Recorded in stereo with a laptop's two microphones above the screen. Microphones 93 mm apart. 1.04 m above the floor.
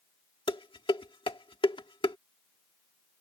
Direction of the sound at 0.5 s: 65° left (ahead or behind).